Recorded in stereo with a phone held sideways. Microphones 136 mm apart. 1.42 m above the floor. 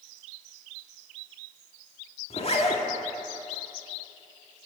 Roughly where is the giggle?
No giggle in this recording.